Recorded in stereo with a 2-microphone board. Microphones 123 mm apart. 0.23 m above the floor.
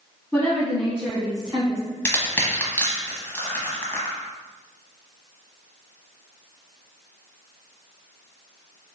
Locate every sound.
0.3 s a woman speaking: 10° left (ahead or behind), 1.9 m; by 1.8 s 40° right (ahead or behind), 1.7 m
2.0 s crushing: 15° left (ahead or behind), 0.9 m